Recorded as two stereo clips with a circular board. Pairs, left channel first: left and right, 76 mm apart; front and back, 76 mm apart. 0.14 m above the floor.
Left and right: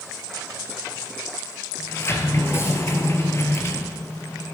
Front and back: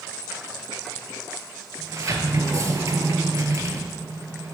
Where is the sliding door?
140° left, 1.2 m.